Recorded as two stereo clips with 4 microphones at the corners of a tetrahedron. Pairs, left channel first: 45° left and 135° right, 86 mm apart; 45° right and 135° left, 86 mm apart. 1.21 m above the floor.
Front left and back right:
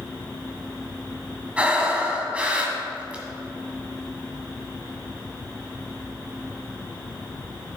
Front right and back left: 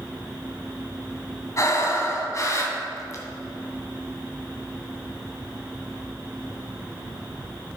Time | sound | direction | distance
1.6 | breathing | 65° right | 1.4 m